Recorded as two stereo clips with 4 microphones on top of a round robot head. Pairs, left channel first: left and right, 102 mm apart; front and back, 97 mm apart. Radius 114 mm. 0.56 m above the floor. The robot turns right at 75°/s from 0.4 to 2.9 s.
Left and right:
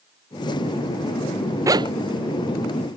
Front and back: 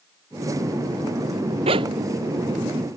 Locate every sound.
1.7 s a zipper: 150° right; by 3.0 s 55° right